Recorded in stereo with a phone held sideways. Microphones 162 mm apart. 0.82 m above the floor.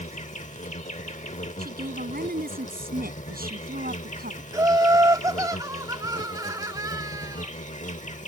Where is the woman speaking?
65° right (ahead or behind).